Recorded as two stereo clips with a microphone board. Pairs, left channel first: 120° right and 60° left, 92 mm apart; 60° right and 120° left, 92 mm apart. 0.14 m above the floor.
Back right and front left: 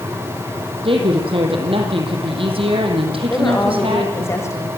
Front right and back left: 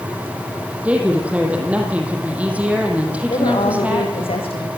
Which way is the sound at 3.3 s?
60° right.